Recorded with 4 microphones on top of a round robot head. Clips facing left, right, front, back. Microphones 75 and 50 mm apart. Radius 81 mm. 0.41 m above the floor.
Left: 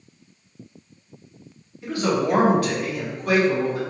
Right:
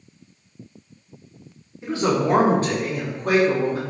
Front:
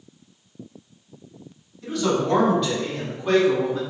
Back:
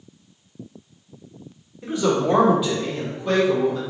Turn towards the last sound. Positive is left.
turn(degrees=-65)